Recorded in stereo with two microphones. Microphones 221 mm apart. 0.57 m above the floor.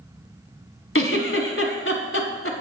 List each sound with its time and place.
0.9 s a giggle: 70° left (ahead or behind), 1.2 m